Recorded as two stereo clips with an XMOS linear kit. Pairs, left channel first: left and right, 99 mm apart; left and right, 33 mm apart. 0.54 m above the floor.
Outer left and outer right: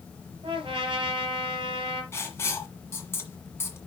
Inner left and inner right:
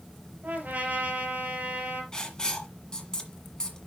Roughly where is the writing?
Left.